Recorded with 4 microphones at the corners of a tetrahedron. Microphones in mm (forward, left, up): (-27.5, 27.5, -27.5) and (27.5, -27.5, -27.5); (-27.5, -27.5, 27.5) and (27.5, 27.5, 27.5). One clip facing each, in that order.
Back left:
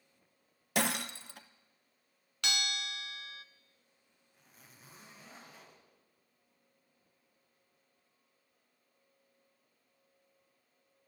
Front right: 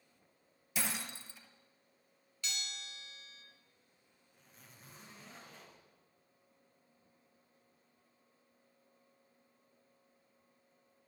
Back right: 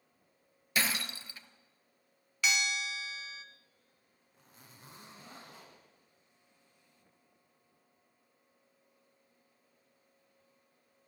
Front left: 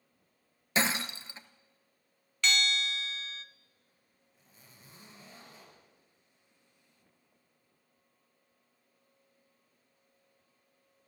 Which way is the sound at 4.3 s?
140° right.